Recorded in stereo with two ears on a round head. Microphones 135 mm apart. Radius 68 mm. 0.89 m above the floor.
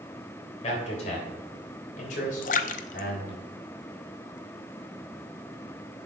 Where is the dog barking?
No dog barking in this recording.